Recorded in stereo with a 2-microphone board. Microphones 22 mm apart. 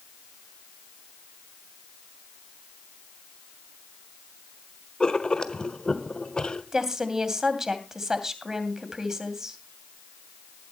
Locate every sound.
5.0 s writing: 40° left (ahead or behind), 1.2 m
6.7 s a woman speaking: 20° right (ahead or behind), 2.5 m